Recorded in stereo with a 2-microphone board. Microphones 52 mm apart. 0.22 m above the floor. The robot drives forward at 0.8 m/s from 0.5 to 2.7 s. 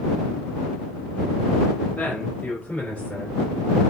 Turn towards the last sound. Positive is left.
turn(degrees=20)  # may be behind; listen again after turning